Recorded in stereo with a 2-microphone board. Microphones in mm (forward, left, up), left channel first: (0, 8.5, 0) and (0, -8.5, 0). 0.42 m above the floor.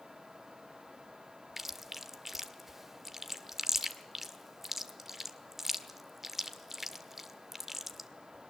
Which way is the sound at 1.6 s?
15° right (ahead or behind).